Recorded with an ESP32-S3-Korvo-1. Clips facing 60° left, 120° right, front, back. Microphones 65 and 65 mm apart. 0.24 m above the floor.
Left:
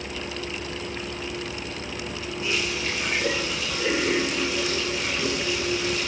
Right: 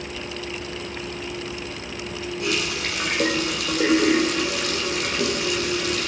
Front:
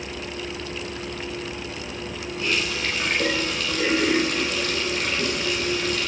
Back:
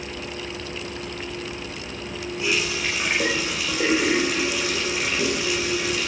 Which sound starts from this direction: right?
A running tap, at 2.4 s.